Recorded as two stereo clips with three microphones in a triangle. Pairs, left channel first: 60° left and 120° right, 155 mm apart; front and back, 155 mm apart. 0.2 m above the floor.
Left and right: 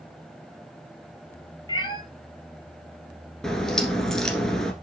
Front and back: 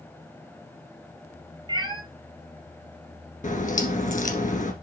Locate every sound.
1.7 s a cat meowing: 120° left, 0.9 m
3.4 s a crack: 25° right, 1.7 m